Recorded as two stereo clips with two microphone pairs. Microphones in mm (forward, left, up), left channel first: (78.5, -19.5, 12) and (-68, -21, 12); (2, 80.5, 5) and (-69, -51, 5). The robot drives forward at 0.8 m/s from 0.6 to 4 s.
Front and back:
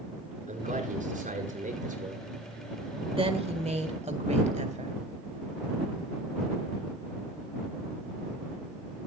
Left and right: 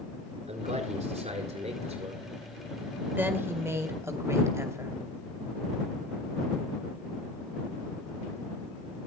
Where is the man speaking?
155° right, 4.5 m; by 2.3 s 160° right, 5.5 m.